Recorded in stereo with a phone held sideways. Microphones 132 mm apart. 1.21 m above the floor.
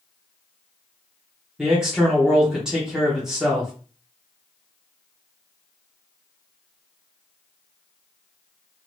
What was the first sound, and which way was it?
A man speaking, 5° right (ahead or behind).